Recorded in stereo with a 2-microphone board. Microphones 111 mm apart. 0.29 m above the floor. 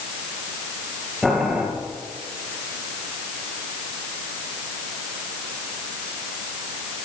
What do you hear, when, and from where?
1.2 s boiling: centre (ahead or behind), 4 m